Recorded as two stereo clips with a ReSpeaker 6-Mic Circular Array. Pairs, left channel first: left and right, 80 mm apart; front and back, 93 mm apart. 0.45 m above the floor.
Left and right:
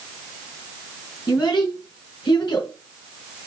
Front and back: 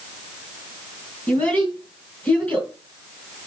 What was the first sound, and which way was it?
A child speaking, 75° left.